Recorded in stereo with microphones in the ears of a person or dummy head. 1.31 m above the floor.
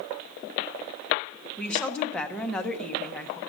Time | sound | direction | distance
1.6 | a woman speaking | 5° left (ahead or behind) | 0.8 m